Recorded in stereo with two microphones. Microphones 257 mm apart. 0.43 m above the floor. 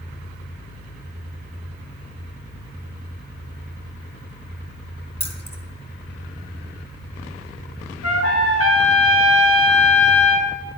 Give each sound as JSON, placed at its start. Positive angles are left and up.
{"t": 5.2, "sound": "keys jangling", "side_deg": 25, "distance_m": 0.8}
{"t": 8.0, "sound": "a trumpet", "side_deg": 60, "distance_m": 1.5}